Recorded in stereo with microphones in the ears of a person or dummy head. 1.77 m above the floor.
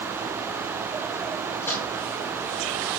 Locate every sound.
1.6 s a microwave: 10° left (ahead or behind), 7.5 m